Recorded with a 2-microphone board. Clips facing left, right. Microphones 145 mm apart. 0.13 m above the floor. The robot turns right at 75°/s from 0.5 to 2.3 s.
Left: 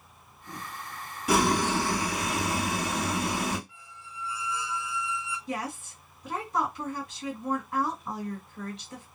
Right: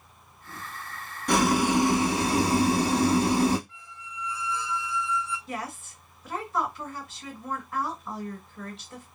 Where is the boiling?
170° left, 0.6 m; by 3.6 s 115° right, 0.6 m.